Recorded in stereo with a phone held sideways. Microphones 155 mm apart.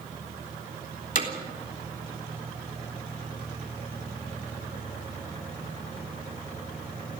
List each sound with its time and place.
1.1 s hammering: 60° left (ahead or behind), 3.5 m